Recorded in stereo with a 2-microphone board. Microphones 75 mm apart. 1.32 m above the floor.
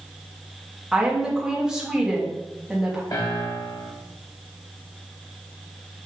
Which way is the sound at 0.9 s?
10° right (ahead or behind).